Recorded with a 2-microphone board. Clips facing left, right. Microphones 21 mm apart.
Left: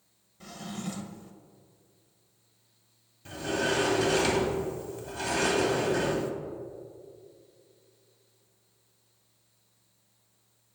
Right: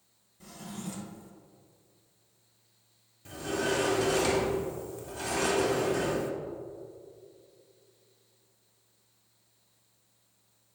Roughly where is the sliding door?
Centre.